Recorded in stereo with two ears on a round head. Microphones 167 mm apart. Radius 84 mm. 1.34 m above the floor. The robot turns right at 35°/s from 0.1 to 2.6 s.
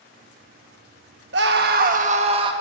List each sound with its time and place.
1.3 s a scream: 70° right, 1.5 m; by 2.5 s 30° right, 1.5 m